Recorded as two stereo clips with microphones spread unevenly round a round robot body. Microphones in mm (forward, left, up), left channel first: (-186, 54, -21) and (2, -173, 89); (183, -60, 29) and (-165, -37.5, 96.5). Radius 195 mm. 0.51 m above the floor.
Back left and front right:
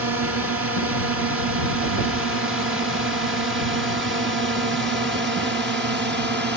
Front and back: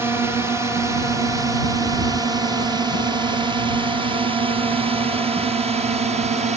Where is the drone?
90° right; by 6.6 s 110° right.